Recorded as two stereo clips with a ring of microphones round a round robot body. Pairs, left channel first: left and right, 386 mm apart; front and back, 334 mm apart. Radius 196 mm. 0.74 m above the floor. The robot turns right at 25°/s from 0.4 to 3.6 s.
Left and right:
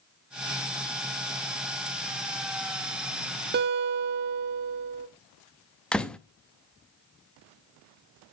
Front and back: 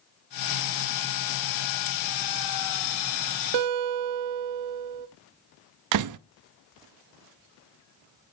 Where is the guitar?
155° right, 0.6 m.